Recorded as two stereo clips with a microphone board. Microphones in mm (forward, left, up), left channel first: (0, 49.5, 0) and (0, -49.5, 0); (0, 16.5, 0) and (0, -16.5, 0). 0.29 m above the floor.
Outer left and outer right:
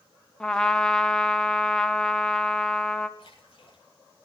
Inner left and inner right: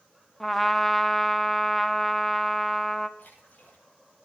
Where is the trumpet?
10° left (ahead or behind), 0.9 m.